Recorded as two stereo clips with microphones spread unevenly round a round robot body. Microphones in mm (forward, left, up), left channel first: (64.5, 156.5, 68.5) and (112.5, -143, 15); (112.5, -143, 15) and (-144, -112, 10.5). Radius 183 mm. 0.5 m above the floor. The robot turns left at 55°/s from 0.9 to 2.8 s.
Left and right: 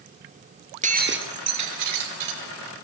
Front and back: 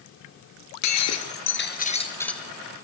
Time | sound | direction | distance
0.8 | breaking glass | 15° right | 5 m